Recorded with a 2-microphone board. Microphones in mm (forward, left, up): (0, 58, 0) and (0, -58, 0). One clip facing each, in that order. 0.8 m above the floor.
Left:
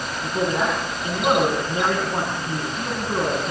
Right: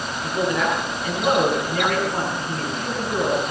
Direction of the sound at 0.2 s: 20° left (ahead or behind).